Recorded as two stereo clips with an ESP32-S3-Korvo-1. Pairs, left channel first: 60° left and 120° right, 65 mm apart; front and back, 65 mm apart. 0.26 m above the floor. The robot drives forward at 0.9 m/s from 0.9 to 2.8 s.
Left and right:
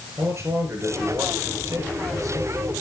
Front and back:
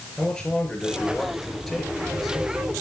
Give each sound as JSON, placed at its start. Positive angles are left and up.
{"t": 0.2, "sound": "a man speaking", "azimuth_deg": -80, "distance_m": 5.5}